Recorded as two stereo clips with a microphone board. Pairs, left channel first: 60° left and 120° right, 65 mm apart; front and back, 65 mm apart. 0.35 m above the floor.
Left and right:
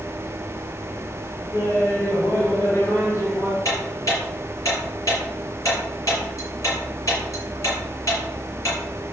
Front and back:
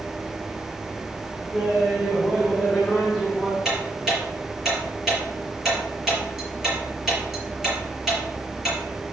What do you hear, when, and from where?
1.5 s laughter: 110° left, 2.5 m; by 3.5 s 90° left, 3 m
3.6 s ticking: 95° left, 5 m